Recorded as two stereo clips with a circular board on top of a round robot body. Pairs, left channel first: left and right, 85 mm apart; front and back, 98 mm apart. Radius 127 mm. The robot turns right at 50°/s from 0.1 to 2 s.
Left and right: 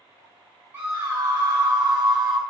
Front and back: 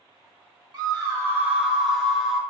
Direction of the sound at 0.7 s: 155° right.